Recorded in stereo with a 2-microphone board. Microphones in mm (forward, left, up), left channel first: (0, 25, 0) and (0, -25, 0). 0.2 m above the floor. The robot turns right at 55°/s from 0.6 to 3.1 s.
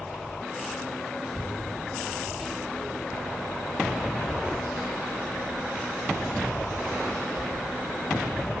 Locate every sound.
1.2 s a child speaking: 40° left (ahead or behind), 4 m; by 8.5 s 55° right (ahead or behind), 4 m